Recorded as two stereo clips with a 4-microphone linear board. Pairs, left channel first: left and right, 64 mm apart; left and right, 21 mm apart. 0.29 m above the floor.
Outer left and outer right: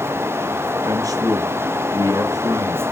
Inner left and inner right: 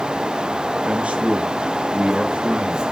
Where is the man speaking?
70° right (ahead or behind), 4 m.